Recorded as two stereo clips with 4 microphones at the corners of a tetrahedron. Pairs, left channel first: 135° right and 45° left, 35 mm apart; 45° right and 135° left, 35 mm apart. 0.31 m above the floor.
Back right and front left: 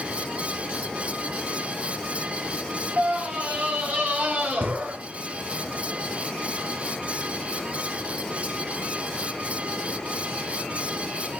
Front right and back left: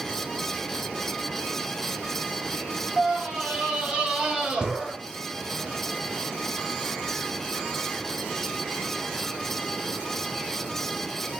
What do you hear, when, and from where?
3.0 s a scream: 75° left, 5.5 m; by 5.0 s 65° left, 4.5 m